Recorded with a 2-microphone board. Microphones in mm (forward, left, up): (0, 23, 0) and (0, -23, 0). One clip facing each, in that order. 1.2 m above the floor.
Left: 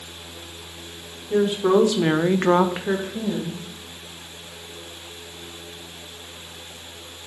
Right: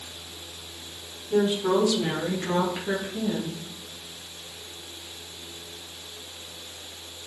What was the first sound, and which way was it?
A woman speaking, 25° left (ahead or behind).